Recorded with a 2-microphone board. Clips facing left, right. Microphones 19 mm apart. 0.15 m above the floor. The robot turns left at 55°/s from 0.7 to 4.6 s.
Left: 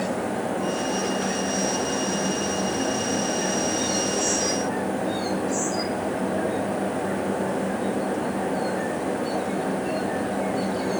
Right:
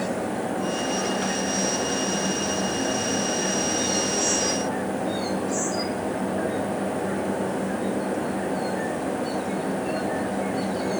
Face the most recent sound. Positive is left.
No sound to turn to.